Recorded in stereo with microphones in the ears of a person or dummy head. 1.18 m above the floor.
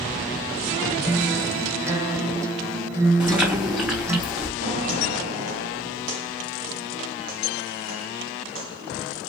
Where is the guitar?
20° right (ahead or behind), 1.2 m.